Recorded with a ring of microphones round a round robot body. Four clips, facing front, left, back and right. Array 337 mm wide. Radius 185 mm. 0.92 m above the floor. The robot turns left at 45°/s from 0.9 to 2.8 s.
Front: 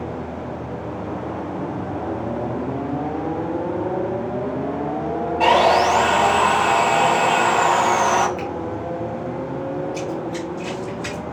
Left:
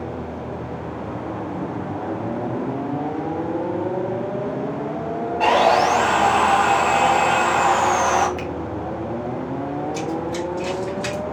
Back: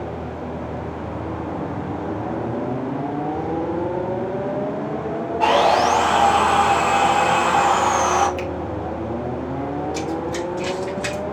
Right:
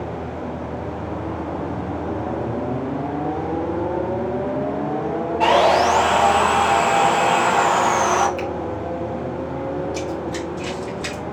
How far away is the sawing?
About 3 m.